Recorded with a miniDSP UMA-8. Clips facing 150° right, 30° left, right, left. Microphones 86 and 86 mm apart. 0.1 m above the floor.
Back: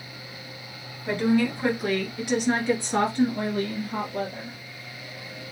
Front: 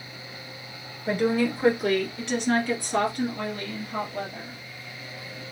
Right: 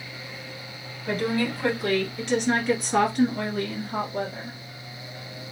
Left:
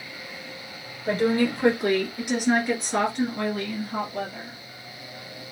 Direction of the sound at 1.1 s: 95° left.